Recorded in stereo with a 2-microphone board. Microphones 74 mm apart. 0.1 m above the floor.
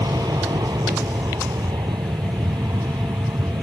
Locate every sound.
0.0 s an aircraft: 60° right (ahead or behind)